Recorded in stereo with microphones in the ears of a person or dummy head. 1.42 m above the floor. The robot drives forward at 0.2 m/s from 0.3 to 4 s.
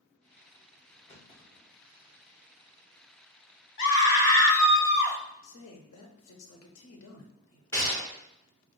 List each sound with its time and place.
1.1 s a clunk: 75° left (ahead or behind), 1.9 m
3.8 s a scream: 70° left (ahead or behind), 1.2 m; by 5.2 s 65° left (ahead or behind), 1.2 m
5.4 s a man speaking: 75° left (ahead or behind), 0.9 m
7.7 s a gunshot: 15° left (ahead or behind), 1.4 m